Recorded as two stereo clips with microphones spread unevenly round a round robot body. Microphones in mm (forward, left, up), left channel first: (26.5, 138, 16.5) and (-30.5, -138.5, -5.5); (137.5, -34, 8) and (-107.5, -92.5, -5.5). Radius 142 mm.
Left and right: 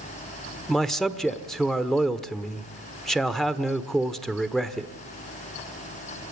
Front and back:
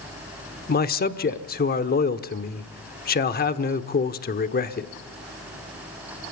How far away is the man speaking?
About 1.2 m.